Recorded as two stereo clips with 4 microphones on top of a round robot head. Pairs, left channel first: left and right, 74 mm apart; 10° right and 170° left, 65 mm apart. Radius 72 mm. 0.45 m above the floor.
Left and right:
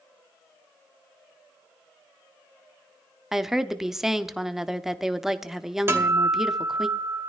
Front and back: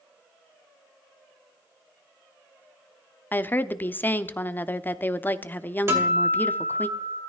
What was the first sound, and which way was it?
A woman speaking, 10° right.